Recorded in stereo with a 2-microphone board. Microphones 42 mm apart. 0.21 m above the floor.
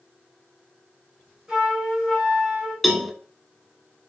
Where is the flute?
15° right (ahead or behind), 3 m.